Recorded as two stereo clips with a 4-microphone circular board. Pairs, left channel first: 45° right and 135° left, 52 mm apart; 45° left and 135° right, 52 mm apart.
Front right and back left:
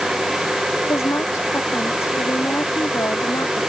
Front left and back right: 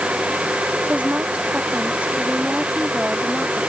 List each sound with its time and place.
0.9 s a woman speaking: 75° right; by 3.7 s 65° right